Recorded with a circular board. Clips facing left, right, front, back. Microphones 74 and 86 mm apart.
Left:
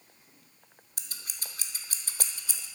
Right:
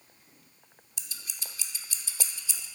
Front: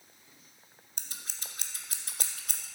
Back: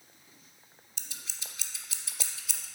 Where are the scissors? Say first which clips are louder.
Even, front 1 dB; 45° left, 0.7 m.